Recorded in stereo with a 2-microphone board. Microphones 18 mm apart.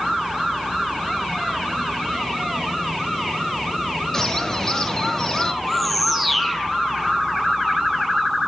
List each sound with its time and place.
4.1 s a bird: 25° left (ahead or behind), 1.4 m
5.6 s a bird: centre (ahead or behind), 2 m